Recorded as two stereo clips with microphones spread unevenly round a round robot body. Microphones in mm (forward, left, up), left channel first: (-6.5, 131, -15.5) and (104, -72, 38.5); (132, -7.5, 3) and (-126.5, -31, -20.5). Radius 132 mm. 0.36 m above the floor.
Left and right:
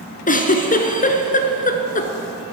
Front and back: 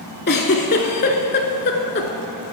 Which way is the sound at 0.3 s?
60° left.